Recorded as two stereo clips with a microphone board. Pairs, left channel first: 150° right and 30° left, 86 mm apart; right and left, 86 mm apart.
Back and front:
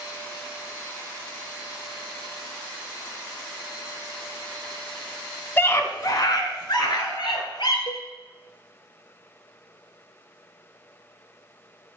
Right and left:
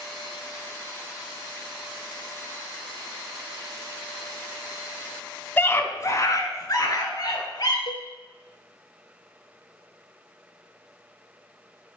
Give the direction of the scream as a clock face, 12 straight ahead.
4 o'clock.